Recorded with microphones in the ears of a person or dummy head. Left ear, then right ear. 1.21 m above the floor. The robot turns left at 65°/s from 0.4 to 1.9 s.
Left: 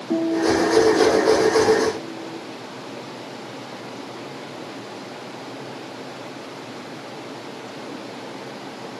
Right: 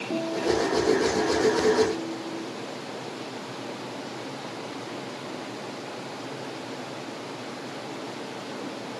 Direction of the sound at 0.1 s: 90° left.